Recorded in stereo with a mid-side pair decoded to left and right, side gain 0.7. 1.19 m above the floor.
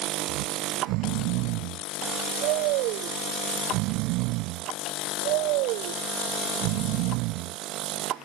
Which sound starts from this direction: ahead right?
Snoring, at 0.3 s.